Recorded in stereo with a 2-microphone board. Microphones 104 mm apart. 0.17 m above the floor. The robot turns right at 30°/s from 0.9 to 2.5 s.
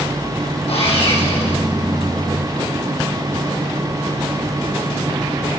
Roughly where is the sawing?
Left.